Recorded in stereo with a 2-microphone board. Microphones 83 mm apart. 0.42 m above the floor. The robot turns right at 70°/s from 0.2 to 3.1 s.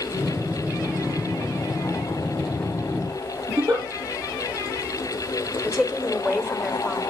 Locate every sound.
3.5 s a giggle: 50° right (ahead or behind), 9.5 m
5.6 s a woman speaking: 10° right (ahead or behind), 1.9 m